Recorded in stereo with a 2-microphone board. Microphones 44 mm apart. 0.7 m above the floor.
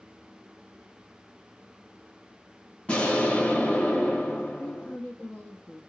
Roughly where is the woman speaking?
Left.